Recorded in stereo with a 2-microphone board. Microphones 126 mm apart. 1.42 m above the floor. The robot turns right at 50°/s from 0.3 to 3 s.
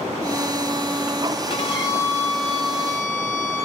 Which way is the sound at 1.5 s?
135° left.